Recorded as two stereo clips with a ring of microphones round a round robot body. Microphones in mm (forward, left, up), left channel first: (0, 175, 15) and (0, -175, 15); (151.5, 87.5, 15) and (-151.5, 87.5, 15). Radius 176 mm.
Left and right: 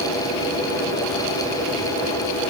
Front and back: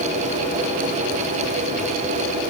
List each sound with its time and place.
Only background noise.